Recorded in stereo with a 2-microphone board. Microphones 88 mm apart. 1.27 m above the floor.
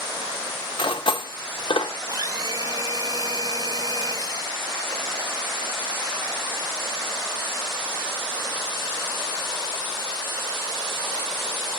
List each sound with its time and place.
0.8 s cutlery clinking: 65° left (ahead or behind), 0.8 m
2.1 s a blender: 45° right (ahead or behind), 1.0 m